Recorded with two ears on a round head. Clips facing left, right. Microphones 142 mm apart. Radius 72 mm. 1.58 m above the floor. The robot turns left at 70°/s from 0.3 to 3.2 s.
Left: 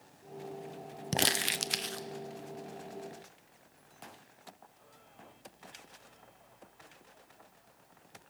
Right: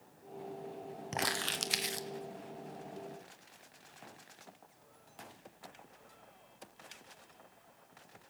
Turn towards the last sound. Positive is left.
turn(degrees=-105)